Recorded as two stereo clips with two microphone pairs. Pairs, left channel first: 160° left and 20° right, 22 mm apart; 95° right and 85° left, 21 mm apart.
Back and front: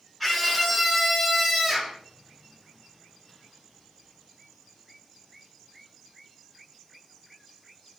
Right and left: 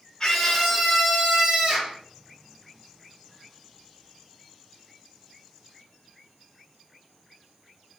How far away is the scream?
About 1.1 m.